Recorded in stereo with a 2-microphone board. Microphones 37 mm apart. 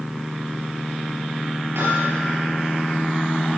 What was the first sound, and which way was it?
Hammering, 85° right.